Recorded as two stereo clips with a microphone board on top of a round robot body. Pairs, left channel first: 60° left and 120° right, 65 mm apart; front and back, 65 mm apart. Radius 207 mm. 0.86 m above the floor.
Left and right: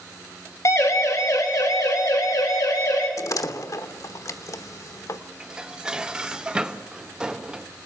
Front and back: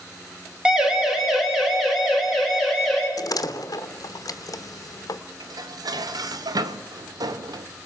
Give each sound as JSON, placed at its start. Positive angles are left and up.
{"t": 0.7, "sound": "a siren", "azimuth_deg": 105, "distance_m": 2.0}
{"t": 3.2, "sound": "a door slam", "azimuth_deg": 30, "distance_m": 1.1}
{"t": 5.4, "sound": "dishes clattering", "azimuth_deg": 165, "distance_m": 0.9}